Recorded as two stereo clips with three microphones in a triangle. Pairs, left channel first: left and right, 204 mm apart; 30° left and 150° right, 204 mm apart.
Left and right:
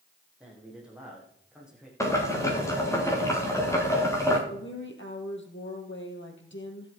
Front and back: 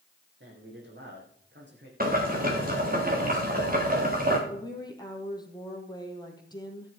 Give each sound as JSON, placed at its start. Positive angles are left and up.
{"t": 0.4, "sound": "a man speaking", "azimuth_deg": -175, "distance_m": 5.0}
{"t": 2.0, "sound": "boiling", "azimuth_deg": 165, "distance_m": 4.0}
{"t": 4.5, "sound": "a woman speaking", "azimuth_deg": 100, "distance_m": 2.5}